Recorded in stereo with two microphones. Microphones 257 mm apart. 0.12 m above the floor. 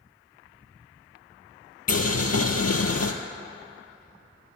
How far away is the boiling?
About 0.8 m.